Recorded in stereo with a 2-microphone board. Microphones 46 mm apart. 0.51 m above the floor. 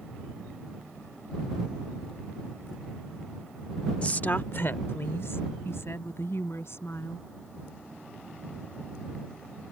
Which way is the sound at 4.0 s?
25° left (ahead or behind).